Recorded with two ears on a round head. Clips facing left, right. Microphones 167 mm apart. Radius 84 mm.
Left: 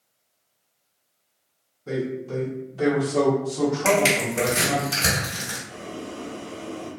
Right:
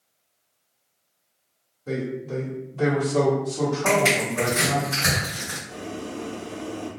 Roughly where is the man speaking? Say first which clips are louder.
Left 1 dB; centre.